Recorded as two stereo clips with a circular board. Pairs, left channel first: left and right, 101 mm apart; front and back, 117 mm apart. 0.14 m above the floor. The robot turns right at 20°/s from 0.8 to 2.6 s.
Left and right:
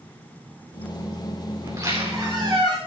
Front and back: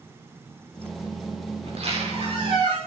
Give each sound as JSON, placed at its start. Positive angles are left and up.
{"t": 1.6, "sound": "a squeak", "azimuth_deg": -150, "distance_m": 6.0}